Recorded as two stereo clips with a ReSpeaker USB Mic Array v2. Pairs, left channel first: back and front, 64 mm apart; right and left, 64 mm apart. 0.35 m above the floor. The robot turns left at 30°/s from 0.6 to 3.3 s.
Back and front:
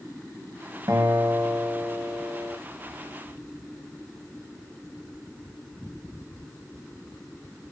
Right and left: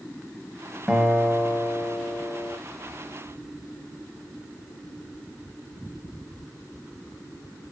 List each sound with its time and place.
0.9 s a guitar: 10° left, 0.8 m; by 2.6 s 40° right, 0.8 m